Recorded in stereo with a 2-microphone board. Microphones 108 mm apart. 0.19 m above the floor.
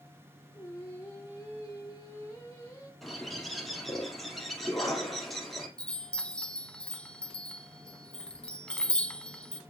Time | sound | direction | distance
0.5 | singing | 30° left (ahead or behind) | 3 m
3.0 | a bird | centre (ahead or behind) | 2.5 m
5.8 | a chime | 10° left (ahead or behind) | 0.9 m